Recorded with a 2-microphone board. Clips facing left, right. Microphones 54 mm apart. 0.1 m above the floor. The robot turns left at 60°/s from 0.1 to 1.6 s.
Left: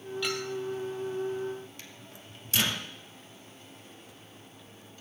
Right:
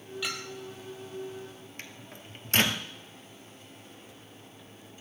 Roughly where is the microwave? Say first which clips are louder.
Right 3 dB; right.